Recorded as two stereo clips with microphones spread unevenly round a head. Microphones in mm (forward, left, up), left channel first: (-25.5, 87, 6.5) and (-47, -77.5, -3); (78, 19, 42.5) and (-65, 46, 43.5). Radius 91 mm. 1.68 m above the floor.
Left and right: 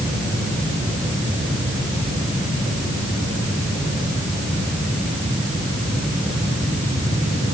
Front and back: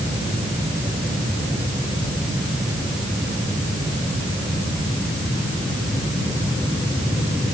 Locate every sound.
Only background noise.